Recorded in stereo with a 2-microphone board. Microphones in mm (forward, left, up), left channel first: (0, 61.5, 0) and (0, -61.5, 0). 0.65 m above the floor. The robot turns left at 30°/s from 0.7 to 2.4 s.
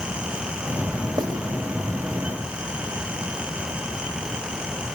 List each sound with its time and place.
1.2 s writing: 40° right (ahead or behind), 1.9 m; by 1.3 s 45° right (ahead or behind), 1.9 m